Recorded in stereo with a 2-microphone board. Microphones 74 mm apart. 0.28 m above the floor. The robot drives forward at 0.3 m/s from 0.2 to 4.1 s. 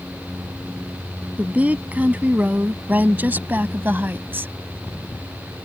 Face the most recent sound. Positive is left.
turn(degrees=-30)  # may be behind; listen again after turning